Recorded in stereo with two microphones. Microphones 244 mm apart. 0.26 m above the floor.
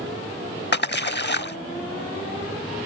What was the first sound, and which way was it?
A splash, 45° left (ahead or behind).